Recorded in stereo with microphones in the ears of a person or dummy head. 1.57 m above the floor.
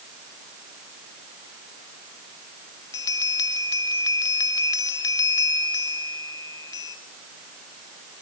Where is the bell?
20° left (ahead or behind), 1.0 m.